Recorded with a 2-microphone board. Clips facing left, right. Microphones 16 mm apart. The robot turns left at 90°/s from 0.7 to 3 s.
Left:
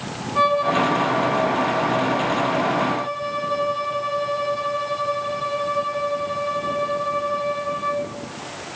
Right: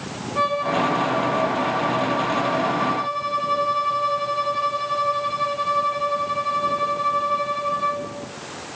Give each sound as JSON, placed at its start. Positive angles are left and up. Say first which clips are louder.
{"t": 0.3, "sound": "a violin", "louder": "left 3 dB", "azimuth_deg": 140, "distance_m": 6.0}